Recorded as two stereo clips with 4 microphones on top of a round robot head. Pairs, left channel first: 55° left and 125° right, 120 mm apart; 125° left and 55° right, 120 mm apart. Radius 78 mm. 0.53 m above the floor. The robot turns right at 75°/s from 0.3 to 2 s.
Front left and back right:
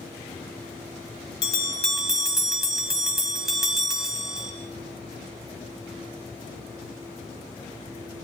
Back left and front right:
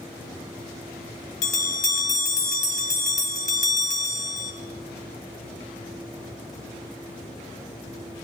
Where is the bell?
100° left, 2 m; by 4.5 s 145° left, 2 m.